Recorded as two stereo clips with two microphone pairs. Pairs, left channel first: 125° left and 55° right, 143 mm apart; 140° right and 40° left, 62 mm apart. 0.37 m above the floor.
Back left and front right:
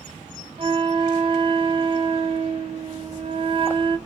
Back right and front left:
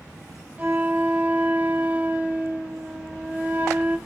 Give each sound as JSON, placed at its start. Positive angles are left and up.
{"t": 0.6, "sound": "a flute", "azimuth_deg": -20, "distance_m": 0.6}